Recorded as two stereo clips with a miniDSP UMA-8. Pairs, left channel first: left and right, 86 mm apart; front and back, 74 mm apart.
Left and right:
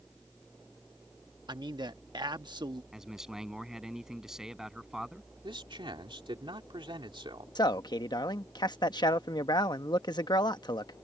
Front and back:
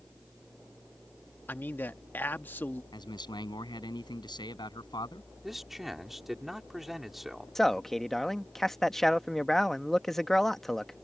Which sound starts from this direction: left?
A man speaking, at 7.5 s.